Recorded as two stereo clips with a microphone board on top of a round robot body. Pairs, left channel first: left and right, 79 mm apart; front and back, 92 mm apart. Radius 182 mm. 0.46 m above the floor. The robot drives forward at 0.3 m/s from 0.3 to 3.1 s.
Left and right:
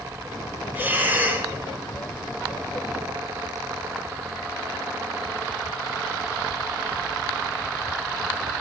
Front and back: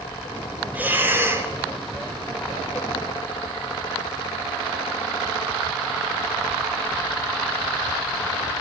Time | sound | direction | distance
0.8 | breathing | 125° right | 1.2 m